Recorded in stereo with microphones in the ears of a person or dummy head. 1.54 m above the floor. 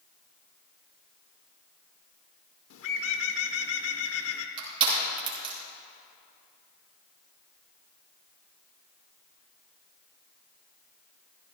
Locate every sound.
2.7 s a bird: 80° left, 0.9 m
4.6 s crushing: 30° right (ahead or behind), 3.5 m